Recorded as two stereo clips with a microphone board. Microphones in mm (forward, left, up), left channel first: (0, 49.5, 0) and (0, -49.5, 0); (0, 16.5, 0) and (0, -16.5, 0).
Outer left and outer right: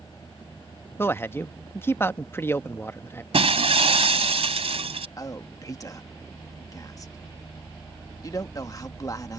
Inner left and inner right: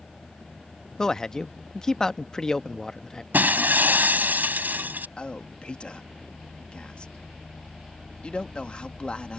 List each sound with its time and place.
1.0 s a man speaking: 25° left (ahead or behind)
3.3 s breaking glass: 85° right
5.2 s a man speaking: 35° left (ahead or behind)